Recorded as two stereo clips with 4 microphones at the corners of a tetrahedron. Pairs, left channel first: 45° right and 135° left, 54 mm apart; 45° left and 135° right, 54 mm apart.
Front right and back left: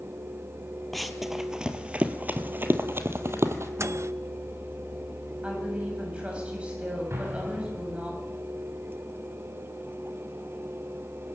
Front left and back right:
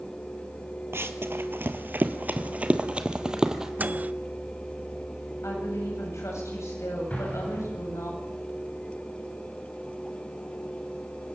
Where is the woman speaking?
70° left, 7.5 m.